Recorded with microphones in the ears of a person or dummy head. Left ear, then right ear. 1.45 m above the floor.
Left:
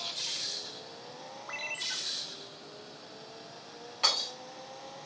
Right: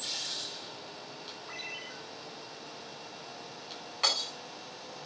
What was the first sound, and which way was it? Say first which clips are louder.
A ringtone: left 7 dB; 25° left (ahead or behind).